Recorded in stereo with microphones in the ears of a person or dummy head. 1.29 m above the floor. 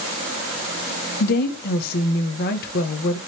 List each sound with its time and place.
1.2 s a woman speaking: 50° left (ahead or behind), 0.9 m